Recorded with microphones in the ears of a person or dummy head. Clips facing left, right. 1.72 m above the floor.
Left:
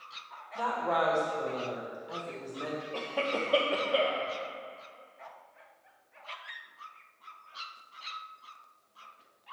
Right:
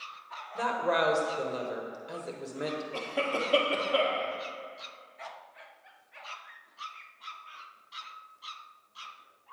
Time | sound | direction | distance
0.6 | a woman speaking | 30° right (ahead or behind) | 1.4 m
2.9 | a cough | centre (ahead or behind) | 1.3 m